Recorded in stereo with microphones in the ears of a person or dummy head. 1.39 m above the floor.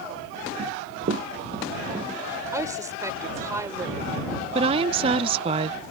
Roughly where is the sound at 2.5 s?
Centre.